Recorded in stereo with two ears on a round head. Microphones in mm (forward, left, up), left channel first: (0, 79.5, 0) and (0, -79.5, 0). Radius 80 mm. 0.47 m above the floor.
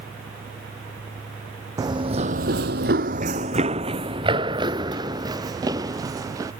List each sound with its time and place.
1.8 s running footsteps: 20° right (ahead or behind)